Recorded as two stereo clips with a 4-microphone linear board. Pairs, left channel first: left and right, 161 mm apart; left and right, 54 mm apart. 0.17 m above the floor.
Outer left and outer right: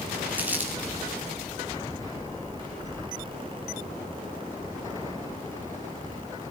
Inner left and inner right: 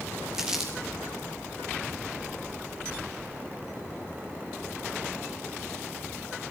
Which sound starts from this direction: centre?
Crumpling, at 0.3 s.